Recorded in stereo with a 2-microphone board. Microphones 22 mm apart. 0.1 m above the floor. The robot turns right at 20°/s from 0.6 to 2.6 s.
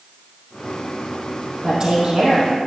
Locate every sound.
1.6 s a woman speaking: 35° right (ahead or behind), 3.5 m; by 2.6 s 50° right (ahead or behind), 3.5 m